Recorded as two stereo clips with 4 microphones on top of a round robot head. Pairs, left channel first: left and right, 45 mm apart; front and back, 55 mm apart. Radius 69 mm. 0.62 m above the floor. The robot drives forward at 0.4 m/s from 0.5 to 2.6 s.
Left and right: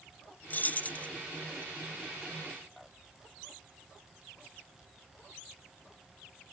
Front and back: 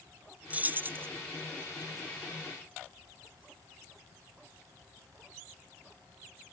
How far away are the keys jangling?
About 0.6 m.